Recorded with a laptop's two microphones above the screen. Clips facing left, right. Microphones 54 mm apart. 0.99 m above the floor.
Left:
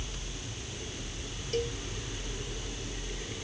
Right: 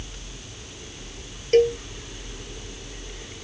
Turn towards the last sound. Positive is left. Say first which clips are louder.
# right 15 dB
turn(degrees=-65)  # may be behind; listen again after turning